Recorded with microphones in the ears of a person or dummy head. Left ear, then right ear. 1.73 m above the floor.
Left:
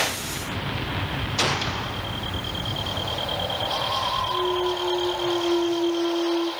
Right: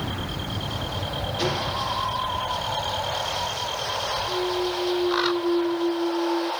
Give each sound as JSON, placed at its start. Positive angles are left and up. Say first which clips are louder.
{"t": 1.4, "sound": "a gunshot", "louder": "left 2 dB", "side_deg": 50, "distance_m": 0.9}
{"t": 4.3, "sound": "a clunk", "louder": "left 2 dB", "side_deg": 65, "distance_m": 4.0}